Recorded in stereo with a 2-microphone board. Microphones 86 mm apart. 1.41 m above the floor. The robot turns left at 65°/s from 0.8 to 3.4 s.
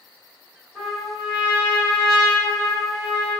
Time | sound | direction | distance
0.8 | a trumpet | 10° left | 1.7 m